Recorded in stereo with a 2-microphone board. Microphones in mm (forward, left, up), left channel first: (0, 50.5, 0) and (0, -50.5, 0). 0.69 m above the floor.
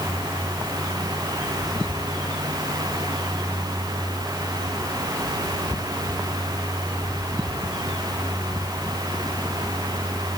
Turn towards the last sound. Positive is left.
No sound to turn to.